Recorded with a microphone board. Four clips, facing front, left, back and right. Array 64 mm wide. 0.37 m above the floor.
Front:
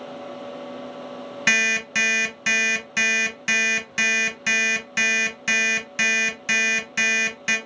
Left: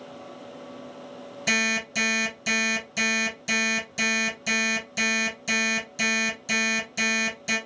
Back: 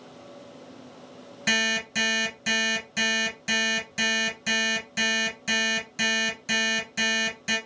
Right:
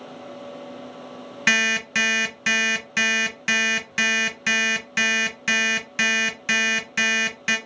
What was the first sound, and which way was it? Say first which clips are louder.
An alarm clock: right 5 dB, front 4 dB; 65° right.